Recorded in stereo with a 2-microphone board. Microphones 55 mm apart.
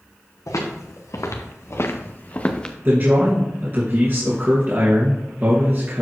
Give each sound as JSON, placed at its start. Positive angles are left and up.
{"t": 0.5, "sound": "footsteps", "side_deg": 80, "distance_m": 2.5}
{"t": 2.9, "sound": "a man speaking", "side_deg": -40, "distance_m": 2.5}